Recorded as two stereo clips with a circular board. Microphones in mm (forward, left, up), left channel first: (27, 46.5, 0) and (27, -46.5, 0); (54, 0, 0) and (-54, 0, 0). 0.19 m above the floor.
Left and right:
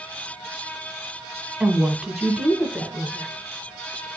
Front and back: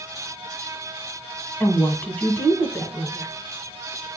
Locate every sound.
1.6 s a woman speaking: 30° right, 1.2 m